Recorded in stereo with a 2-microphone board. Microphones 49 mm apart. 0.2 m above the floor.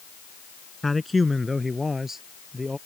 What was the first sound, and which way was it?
A man speaking, 5° left (ahead or behind).